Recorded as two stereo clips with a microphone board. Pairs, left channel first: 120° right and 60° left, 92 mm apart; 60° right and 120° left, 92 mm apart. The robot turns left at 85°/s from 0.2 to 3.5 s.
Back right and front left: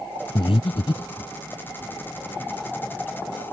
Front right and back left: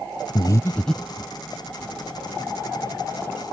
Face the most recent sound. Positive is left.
turn(degrees=-5)